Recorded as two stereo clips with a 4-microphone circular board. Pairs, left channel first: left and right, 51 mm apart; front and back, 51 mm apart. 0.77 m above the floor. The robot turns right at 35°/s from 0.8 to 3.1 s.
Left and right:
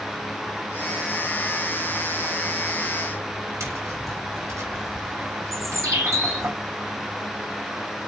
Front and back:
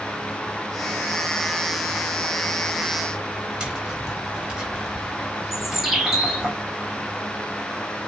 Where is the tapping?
110° right, 3.5 m.